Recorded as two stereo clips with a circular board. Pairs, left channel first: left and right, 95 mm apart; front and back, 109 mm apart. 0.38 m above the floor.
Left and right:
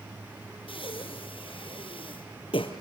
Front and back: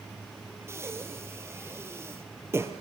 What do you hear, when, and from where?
0.7 s breathing: 115° left, 2.5 m